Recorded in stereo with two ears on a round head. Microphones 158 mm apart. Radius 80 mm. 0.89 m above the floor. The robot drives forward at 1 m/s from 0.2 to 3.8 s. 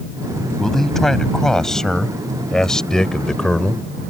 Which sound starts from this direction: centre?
A man speaking, at 0.6 s.